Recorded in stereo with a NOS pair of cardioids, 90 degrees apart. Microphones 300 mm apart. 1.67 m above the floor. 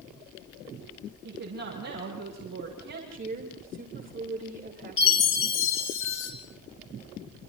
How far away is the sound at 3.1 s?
About 6 m.